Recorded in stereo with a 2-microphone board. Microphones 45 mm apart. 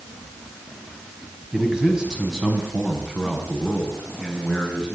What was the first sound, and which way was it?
A man speaking, 20° right (ahead or behind).